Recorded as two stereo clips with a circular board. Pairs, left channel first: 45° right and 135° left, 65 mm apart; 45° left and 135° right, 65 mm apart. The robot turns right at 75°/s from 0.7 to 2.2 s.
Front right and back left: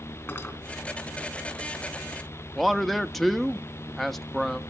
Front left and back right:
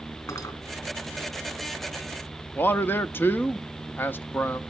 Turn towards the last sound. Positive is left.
turn(degrees=40)